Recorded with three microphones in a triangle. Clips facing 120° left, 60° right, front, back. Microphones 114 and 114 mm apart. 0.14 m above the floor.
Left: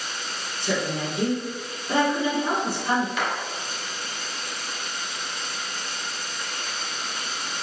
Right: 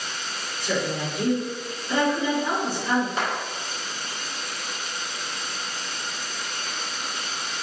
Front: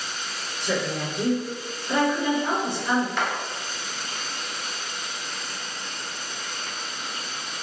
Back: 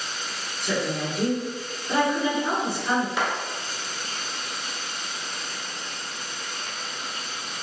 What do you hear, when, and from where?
0.6 s a woman speaking: 100° left, 1.9 m
3.2 s a clap: 100° right, 1.5 m